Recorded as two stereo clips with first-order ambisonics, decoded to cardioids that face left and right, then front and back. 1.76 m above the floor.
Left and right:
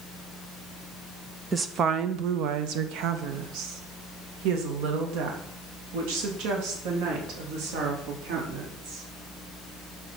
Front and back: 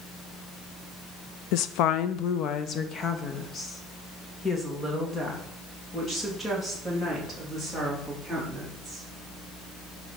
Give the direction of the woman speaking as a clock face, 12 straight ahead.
1 o'clock.